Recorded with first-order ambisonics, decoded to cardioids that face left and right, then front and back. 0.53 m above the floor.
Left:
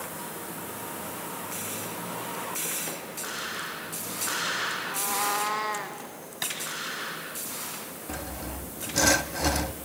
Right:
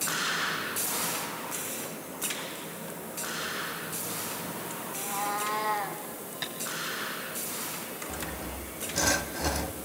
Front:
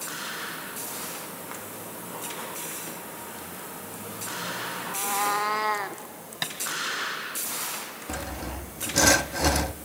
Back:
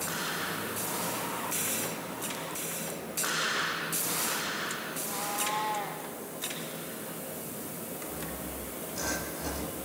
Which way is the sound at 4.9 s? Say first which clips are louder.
Left 4 dB, front 9 dB; 35° left.